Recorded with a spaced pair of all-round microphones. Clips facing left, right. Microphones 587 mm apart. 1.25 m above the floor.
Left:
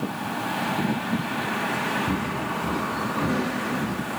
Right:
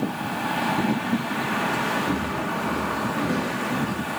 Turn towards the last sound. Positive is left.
turn(degrees=15)  # may be behind; listen again after turning